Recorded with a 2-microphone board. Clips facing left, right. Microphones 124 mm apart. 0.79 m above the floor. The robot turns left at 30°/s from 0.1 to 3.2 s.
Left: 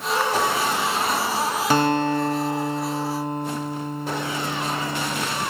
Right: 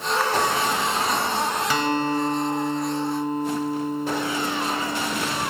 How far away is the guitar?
About 1.0 m.